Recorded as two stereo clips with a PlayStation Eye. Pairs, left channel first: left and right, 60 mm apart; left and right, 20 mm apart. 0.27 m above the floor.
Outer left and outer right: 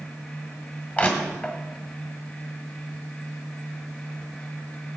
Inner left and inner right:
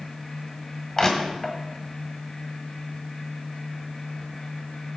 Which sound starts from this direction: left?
Crushing, at 1.0 s.